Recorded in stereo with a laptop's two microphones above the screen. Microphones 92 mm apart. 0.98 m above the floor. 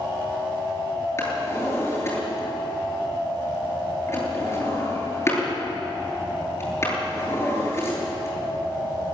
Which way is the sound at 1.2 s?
30° left (ahead or behind).